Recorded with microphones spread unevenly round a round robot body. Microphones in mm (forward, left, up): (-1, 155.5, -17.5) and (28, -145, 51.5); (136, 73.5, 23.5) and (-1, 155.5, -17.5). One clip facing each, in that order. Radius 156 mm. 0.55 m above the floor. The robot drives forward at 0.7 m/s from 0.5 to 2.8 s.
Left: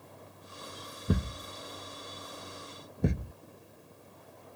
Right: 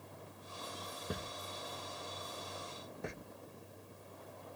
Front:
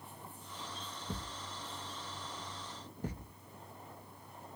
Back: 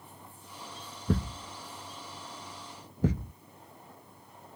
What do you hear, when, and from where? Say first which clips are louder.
1.1 s a thud: left 12 dB, back 15 dB; 135° left; by 3.3 s 145° left